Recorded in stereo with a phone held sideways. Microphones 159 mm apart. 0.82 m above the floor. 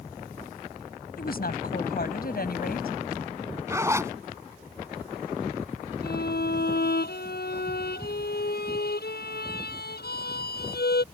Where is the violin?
85° left.